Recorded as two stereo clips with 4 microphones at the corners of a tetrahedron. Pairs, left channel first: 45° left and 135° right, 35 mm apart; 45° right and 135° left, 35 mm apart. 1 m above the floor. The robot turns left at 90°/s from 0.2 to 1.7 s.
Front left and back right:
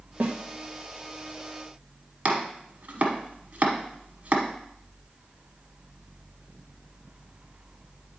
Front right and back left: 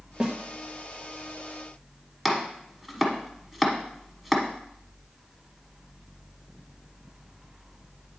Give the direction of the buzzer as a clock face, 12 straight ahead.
I don't hear a buzzer.